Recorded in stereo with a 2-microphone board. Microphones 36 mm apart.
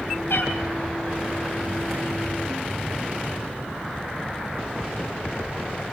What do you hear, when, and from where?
0.3 s a cat meowing: 80° left, 5 m